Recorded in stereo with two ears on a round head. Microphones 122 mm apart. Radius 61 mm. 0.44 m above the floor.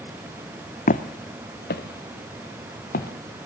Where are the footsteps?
60° left (ahead or behind), 1.3 m; by 3.1 s 75° left (ahead or behind), 3 m.